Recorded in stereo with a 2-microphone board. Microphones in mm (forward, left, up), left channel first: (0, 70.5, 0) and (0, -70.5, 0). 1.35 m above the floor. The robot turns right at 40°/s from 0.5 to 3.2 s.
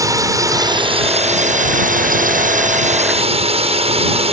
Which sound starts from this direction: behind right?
A drone, at 0.0 s.